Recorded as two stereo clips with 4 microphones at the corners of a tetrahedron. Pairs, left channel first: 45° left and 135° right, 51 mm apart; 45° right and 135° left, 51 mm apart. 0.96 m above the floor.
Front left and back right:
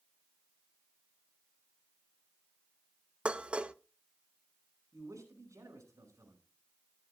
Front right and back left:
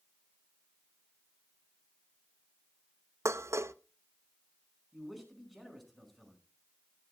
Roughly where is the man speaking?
Behind right.